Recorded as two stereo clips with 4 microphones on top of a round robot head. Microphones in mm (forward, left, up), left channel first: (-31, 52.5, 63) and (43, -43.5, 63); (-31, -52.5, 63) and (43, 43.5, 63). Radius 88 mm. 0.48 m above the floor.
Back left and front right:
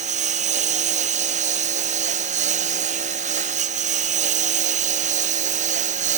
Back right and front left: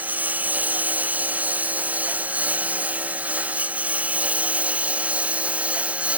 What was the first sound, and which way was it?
A lawn mower, 25° right.